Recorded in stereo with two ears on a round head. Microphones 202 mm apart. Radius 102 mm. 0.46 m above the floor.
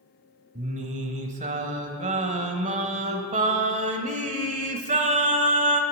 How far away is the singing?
About 1.4 m.